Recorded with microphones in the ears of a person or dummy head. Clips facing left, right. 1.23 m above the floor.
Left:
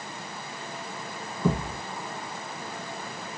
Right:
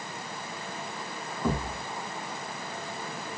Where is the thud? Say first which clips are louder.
Left 3 dB; centre (ahead or behind), 2 m.